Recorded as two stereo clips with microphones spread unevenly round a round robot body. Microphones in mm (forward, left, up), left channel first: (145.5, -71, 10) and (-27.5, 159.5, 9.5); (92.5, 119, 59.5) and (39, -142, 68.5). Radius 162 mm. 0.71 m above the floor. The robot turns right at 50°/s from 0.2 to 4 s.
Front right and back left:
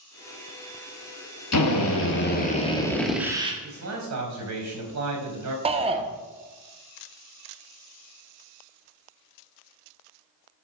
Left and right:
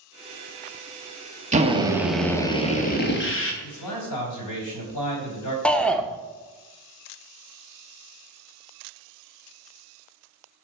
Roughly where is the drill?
Ahead right.